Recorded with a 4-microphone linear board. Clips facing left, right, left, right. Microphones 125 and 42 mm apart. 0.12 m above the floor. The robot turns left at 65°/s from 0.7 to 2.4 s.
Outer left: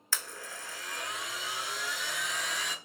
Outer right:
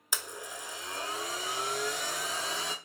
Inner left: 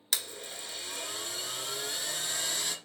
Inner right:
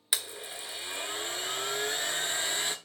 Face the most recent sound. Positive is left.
turn(degrees=-135)